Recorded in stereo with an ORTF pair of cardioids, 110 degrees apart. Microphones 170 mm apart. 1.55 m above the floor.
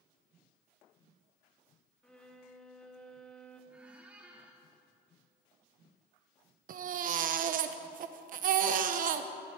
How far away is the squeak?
About 2.5 m.